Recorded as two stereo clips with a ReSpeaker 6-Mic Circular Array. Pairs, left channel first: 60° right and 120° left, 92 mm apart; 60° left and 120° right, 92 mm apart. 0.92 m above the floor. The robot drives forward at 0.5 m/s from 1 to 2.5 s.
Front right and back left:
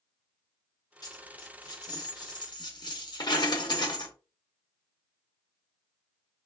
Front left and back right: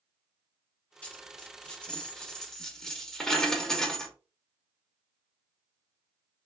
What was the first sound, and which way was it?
A dropped coin, 15° right.